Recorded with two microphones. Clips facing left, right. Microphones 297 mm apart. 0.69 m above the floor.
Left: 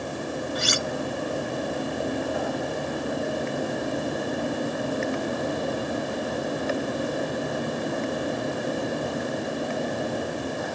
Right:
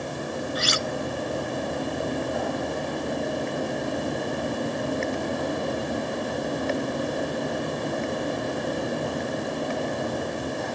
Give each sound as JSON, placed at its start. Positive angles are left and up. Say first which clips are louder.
{"t": 0.6, "sound": "cutlery clinking", "louder": "even", "side_deg": 60}